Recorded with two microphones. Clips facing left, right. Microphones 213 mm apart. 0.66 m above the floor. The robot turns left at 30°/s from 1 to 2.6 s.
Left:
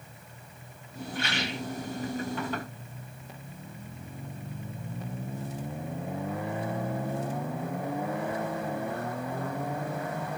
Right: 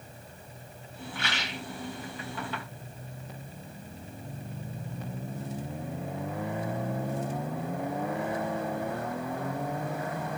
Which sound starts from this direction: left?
A rattle, at 1.1 s.